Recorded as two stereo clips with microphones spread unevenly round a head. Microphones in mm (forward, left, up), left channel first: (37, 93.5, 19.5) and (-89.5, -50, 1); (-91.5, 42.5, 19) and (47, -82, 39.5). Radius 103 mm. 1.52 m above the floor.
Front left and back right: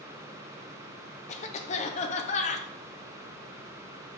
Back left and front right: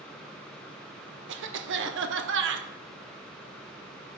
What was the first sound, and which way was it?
A cough, 10° right.